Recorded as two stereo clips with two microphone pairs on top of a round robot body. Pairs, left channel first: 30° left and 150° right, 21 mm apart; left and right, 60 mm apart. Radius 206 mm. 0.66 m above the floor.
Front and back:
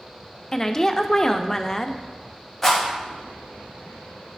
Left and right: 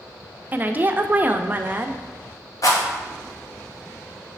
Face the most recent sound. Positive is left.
turn(degrees=105)